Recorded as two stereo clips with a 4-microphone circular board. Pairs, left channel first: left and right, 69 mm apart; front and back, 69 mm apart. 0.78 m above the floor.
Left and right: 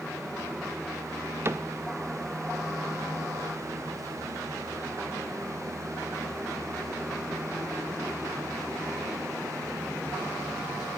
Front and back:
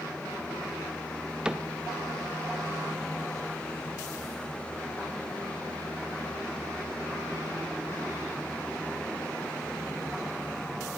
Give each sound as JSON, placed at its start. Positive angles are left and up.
{"t": 1.4, "sound": "a cupboard door", "azimuth_deg": -110, "distance_m": 0.5}